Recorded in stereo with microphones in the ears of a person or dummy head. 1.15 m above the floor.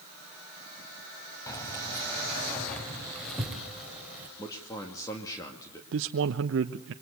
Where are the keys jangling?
20° left (ahead or behind), 4.5 m; by 4.3 s 10° right (ahead or behind), 3.5 m.